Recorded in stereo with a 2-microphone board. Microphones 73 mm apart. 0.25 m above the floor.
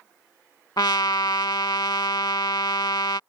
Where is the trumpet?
75° left (ahead or behind).